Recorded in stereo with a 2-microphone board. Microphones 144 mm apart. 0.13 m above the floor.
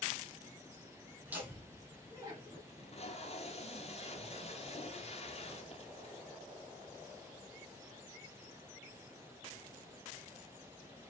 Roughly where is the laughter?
Centre.